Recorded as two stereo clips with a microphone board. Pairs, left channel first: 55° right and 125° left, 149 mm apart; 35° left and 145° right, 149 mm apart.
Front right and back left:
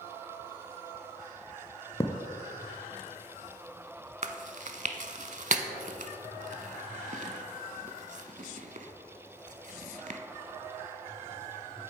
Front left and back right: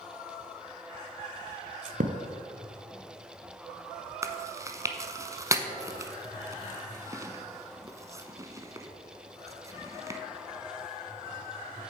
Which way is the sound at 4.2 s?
145° left.